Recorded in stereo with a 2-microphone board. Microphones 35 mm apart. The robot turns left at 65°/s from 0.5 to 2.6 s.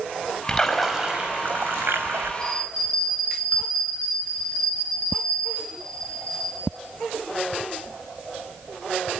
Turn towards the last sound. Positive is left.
turn(degrees=30)  # may be behind; listen again after turning